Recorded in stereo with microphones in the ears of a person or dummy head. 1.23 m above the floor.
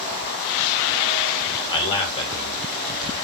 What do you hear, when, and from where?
1.7 s a man speaking: 30° left (ahead or behind), 0.9 m